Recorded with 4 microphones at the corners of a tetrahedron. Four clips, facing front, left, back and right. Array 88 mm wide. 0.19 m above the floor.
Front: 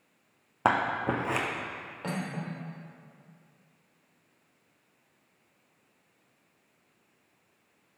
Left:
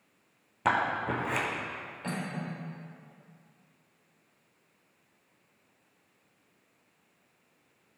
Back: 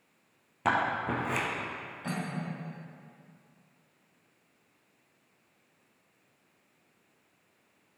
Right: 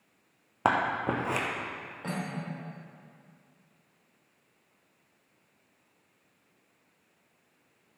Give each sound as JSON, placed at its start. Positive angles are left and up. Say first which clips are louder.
{"t": 0.7, "sound": "scissors", "louder": "right 1 dB, front 2 dB", "azimuth_deg": -45, "distance_m": 1.8}
{"t": 2.0, "sound": "cutlery clinking", "louder": "even, front 1 dB", "azimuth_deg": -25, "distance_m": 4.0}